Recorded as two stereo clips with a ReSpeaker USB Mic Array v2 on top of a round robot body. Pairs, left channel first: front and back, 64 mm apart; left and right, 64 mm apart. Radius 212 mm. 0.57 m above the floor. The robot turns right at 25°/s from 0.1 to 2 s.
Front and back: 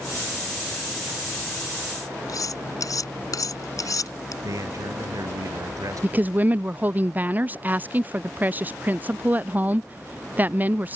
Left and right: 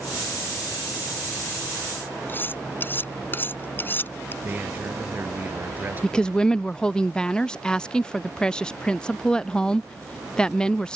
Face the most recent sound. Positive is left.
turn(degrees=155)